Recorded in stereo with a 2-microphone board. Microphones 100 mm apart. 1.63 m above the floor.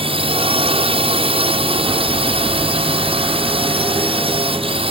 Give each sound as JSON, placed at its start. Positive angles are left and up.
{"t": 0.0, "sound": "a drone", "side_deg": -70}